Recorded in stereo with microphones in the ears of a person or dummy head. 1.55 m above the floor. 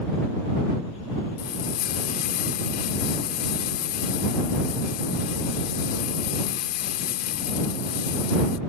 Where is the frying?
50° left (ahead or behind).